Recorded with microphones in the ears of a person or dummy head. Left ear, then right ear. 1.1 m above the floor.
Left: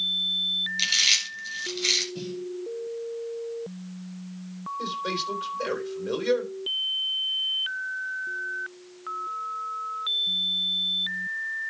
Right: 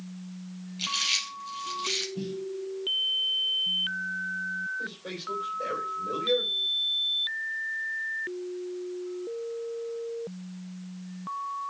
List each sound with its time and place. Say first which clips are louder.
0.8 s chewing: left 4 dB; 65° left (ahead or behind), 7 m
2.1 s a snare drum: even; 75° left (ahead or behind), 4.5 m
4.8 s a man speaking: left 7 dB; 65° left (ahead or behind), 4 m